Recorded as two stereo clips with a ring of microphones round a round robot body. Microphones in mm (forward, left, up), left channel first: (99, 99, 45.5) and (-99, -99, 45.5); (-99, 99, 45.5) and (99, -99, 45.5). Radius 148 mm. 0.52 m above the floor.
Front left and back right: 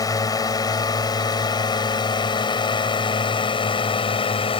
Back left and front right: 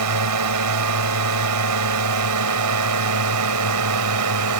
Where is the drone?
30° right; by 4.6 s 25° right.